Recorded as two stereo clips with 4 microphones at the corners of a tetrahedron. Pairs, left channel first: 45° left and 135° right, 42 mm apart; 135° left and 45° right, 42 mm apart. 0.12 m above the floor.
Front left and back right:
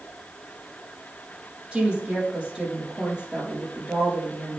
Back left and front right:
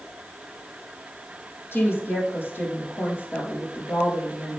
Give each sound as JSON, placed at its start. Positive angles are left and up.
{"t": 1.7, "sound": "a woman speaking", "azimuth_deg": 160, "distance_m": 4.0}